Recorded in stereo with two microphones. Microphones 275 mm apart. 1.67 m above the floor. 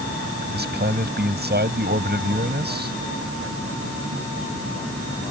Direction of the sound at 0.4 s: 35° right (ahead or behind).